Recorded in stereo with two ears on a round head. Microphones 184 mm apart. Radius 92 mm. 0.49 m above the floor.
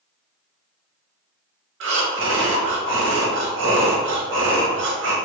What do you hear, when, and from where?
1.8 s breathing: 60° right (ahead or behind), 0.7 m